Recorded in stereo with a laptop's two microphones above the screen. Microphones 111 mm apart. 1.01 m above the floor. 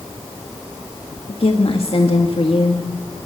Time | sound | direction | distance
1.3 | a woman speaking | 55° left (ahead or behind) | 1.8 m